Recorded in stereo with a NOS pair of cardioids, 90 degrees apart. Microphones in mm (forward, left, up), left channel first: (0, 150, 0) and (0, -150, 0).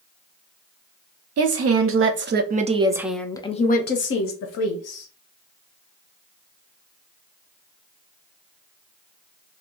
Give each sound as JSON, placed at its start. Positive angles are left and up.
{"t": 1.4, "sound": "a woman speaking", "azimuth_deg": -55, "distance_m": 1.1}